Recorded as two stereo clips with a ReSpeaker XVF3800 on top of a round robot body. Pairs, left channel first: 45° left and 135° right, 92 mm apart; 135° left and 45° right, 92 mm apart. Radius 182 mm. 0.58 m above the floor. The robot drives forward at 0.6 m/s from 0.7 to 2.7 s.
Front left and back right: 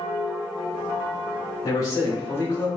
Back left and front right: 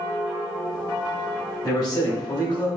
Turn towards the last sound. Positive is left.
turn(degrees=110)